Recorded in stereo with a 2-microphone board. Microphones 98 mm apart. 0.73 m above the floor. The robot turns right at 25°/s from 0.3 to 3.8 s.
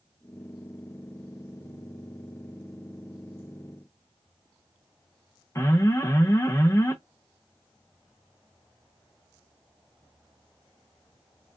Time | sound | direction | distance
5.5 | an alarm | 30° left (ahead or behind) | 0.5 m